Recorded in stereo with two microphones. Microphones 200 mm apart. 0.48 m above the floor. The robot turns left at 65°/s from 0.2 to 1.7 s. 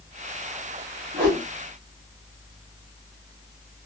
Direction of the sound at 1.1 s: 65° right (ahead or behind).